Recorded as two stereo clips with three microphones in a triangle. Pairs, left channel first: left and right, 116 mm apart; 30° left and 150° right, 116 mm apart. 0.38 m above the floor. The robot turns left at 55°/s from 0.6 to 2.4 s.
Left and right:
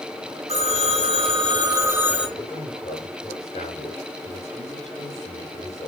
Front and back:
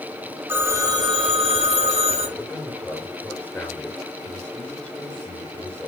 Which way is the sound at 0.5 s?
80° right.